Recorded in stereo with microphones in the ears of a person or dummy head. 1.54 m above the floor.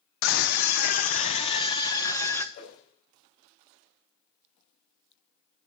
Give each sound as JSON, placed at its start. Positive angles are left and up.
{"t": 0.2, "sound": "a scream", "side_deg": 70, "distance_m": 0.9}
{"t": 2.5, "sound": "a whoosh", "side_deg": 50, "distance_m": 4.0}